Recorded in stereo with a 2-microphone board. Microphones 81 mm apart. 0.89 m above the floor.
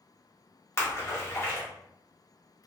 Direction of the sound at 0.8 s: 35° left (ahead or behind).